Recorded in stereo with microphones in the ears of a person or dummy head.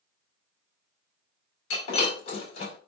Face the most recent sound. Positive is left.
turn(degrees=85)